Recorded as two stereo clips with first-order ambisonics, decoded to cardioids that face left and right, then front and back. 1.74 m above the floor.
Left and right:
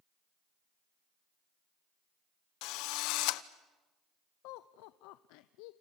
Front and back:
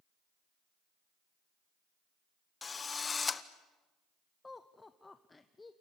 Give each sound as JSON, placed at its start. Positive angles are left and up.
{"t": 2.6, "sound": "a drill", "azimuth_deg": 70, "distance_m": 0.9}
{"t": 4.4, "sound": "laughter", "azimuth_deg": 80, "distance_m": 0.7}